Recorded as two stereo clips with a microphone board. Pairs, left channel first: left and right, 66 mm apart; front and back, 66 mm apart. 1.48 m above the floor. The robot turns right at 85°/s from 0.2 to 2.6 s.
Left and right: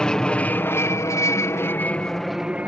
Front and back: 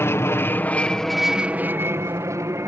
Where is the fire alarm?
No fire alarm in this recording.